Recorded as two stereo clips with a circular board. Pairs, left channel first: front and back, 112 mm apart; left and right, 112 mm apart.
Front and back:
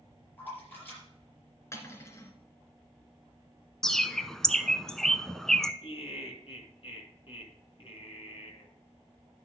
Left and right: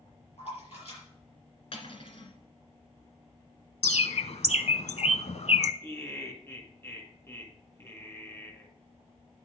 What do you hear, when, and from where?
0.4 s a splash: 70° left, 5.5 m
1.7 s cutlery clinking: 65° left, 1.5 m
3.8 s a bird: 85° left, 0.5 m
5.8 s laughter: 25° left, 2 m